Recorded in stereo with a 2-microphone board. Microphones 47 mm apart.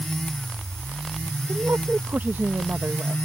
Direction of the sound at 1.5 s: 55° right (ahead or behind).